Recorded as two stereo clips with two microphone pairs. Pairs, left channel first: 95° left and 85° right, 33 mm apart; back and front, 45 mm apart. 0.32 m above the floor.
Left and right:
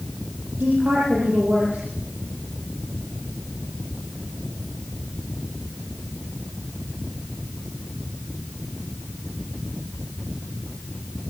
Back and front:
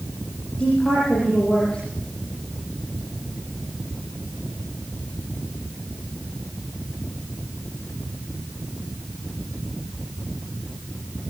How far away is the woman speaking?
About 9 m.